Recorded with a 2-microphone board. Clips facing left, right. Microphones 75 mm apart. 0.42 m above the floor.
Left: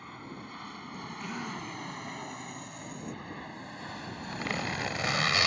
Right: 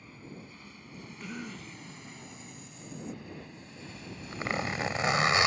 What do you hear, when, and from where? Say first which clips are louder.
0.0 s an aircraft: left 4 dB; 70° left (ahead or behind); by 5.5 s 60° left (ahead or behind)
1.2 s a cough: left 3 dB; 5° left (ahead or behind)
3.9 s a zipper: left 3 dB; 25° right (ahead or behind)